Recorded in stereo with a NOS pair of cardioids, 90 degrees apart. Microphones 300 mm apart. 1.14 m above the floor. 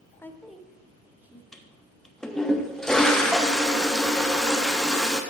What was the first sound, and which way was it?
A woman speaking, 10° left.